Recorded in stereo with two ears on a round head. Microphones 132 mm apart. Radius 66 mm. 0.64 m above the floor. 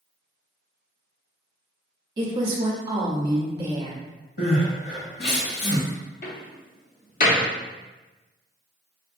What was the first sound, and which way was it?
A woman speaking, 30° right (ahead or behind).